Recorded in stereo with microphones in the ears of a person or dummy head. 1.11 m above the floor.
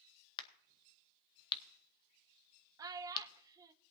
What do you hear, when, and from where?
0.4 s a crack: 20° left (ahead or behind), 0.8 m
2.8 s a child speaking: 25° right (ahead or behind), 0.7 m